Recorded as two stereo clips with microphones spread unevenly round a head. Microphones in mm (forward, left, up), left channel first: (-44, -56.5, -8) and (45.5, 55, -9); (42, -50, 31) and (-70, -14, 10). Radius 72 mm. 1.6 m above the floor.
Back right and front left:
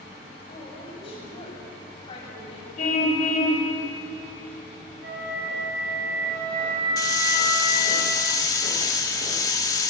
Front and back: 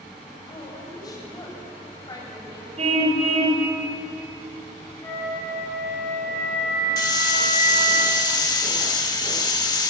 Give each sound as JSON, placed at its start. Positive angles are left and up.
{"t": 0.5, "sound": "a woman speaking", "azimuth_deg": -75, "distance_m": 8.0}
{"t": 2.8, "sound": "a car horn", "azimuth_deg": -165, "distance_m": 3.5}
{"t": 5.0, "sound": "a flute", "azimuth_deg": 55, "distance_m": 10.0}
{"t": 7.0, "sound": "a hiss", "azimuth_deg": -65, "distance_m": 1.8}